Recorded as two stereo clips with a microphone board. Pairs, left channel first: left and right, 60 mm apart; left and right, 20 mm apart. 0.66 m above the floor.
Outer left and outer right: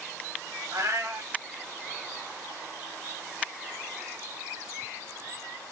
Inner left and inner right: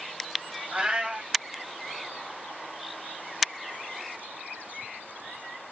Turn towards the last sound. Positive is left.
turn(degrees=-65)  # may be behind; listen again after turning